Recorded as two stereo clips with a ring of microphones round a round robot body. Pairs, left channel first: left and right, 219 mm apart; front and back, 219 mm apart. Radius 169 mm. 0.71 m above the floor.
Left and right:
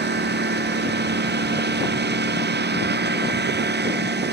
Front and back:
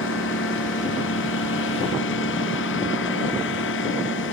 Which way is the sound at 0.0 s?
50° right.